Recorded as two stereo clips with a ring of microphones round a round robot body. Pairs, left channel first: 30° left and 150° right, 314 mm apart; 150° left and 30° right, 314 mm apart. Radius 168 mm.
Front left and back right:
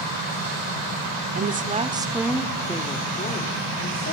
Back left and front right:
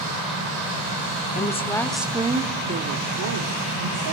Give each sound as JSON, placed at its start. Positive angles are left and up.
{"t": 1.4, "sound": "a woman speaking", "azimuth_deg": -170, "distance_m": 1.1}